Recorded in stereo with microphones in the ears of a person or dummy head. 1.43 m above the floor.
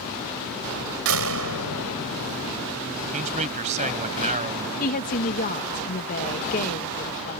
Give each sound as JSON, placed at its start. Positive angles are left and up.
{"t": 1.1, "sound": "a door slam", "side_deg": -70}
{"t": 3.1, "sound": "a man speaking", "side_deg": -35}
{"t": 4.8, "sound": "a woman speaking", "side_deg": 45}